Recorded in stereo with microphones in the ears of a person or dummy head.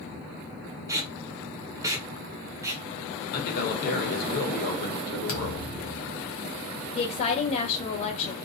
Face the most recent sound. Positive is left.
turn(degrees=40)  # may be behind; listen again after turning